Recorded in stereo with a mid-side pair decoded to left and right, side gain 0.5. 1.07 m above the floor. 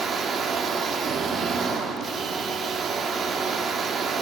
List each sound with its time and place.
0.0 s a machine running: 50° right, 1.3 m